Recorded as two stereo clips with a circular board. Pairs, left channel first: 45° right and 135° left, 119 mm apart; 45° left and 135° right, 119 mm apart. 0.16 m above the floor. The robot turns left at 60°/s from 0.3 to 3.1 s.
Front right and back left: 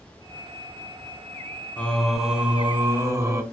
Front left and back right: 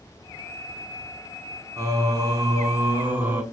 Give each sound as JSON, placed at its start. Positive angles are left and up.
{"t": 1.8, "sound": "singing", "azimuth_deg": -110, "distance_m": 0.5}